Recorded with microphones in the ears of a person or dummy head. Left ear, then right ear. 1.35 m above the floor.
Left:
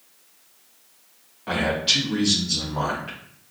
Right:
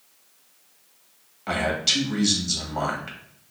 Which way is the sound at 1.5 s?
80° right.